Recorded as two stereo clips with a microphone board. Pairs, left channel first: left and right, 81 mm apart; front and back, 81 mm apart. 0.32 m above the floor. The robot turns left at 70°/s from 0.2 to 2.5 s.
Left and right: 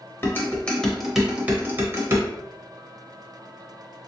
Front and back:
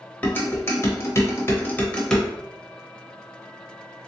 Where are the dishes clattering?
55° left, 0.9 m; by 2.2 s 85° right, 0.9 m.